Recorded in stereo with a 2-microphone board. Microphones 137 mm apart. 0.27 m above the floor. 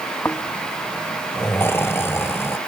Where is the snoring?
15° left (ahead or behind).